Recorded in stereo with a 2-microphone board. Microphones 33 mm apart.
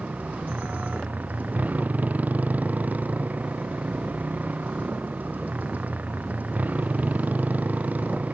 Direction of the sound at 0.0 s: 50° right (ahead or behind).